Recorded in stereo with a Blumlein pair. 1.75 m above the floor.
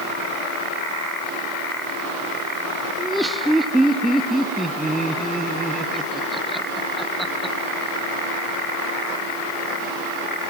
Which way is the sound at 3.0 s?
5° right.